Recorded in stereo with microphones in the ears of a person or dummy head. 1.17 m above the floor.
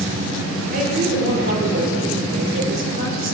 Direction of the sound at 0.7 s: 50° right (ahead or behind).